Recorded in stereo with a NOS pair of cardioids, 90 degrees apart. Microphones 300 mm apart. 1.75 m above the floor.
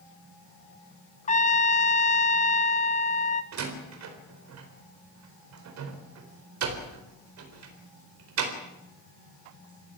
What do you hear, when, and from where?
1.3 s a trumpet: 25° left, 1.3 m
3.5 s a door slam: 60° right, 4 m